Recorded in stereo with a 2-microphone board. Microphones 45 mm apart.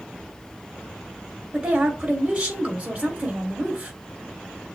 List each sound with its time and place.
1.5 s a woman speaking: 30° right (ahead or behind), 2 m